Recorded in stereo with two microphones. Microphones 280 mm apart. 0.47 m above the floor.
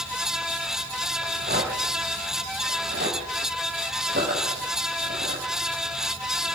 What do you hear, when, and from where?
1.2 s a rattle: 35° right (ahead or behind), 5 m